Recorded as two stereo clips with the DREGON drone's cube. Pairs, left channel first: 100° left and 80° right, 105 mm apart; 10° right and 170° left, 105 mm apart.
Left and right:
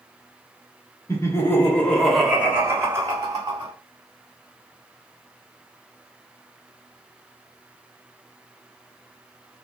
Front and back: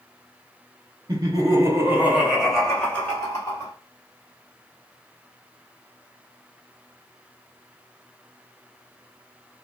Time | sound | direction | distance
1.1 | laughter | 145° left | 1.0 m